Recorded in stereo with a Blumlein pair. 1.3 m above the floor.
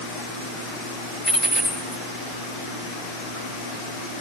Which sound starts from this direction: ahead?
A dropped coin, at 1.2 s.